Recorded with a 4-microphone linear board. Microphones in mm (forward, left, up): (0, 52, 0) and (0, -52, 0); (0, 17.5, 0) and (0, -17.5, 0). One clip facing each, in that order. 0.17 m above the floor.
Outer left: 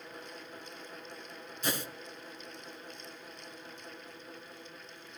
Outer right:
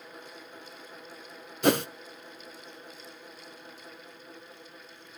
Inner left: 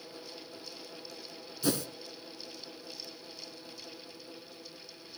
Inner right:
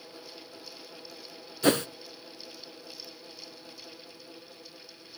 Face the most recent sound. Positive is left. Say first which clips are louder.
# outer right 13 dB, inner right 7 dB
turn(degrees=-65)  # may be behind; listen again after turning